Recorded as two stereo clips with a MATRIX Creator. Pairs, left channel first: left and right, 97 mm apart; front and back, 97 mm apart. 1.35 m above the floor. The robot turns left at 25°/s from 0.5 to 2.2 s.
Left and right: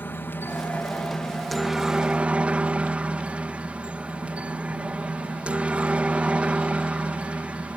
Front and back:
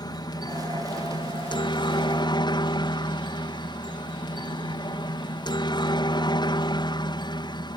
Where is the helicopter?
25° left; by 7.8 s 15° right.